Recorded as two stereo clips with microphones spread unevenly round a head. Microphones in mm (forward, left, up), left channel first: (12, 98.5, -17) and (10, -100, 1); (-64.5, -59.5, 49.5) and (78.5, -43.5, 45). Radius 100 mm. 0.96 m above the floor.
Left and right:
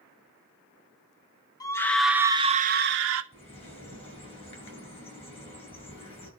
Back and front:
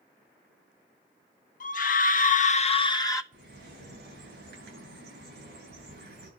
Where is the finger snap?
I don't hear a finger snap.